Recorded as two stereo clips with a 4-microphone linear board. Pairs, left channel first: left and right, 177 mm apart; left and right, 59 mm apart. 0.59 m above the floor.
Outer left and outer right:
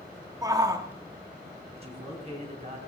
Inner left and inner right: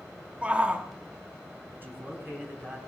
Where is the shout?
20° right (ahead or behind), 1.3 m.